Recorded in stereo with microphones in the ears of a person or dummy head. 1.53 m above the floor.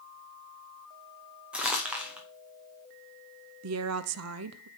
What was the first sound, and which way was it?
Crumpling, 10° right (ahead or behind).